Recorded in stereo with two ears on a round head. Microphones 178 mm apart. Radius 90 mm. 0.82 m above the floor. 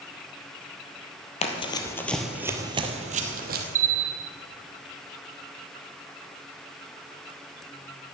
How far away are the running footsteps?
About 1.3 m.